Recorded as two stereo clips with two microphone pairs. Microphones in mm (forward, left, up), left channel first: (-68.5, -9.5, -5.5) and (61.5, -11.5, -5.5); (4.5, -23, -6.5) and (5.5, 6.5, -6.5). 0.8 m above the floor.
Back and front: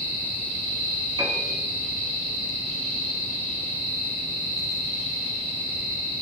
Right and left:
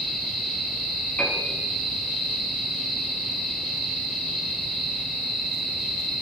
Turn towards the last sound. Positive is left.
turn(degrees=-55)